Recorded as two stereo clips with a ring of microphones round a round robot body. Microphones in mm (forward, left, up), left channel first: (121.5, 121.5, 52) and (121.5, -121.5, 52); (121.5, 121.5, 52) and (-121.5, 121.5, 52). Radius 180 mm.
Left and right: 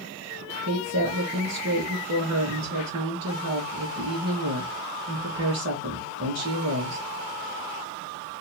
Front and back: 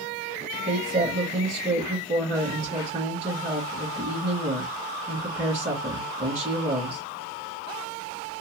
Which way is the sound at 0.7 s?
110° right.